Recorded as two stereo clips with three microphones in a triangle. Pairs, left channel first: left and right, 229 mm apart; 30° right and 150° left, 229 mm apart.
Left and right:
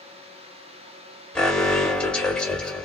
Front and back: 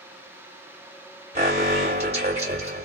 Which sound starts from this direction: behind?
An alarm, at 1.4 s.